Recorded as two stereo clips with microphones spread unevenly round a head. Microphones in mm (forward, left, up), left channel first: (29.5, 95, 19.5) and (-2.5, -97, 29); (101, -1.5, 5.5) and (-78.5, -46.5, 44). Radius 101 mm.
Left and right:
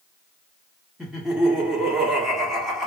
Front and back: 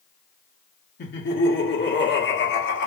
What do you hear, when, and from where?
1.0 s laughter: 10° right, 1.5 m